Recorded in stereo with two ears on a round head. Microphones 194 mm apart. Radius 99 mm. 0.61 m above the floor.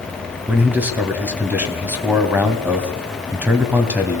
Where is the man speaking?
10° right (ahead or behind), 3.5 m.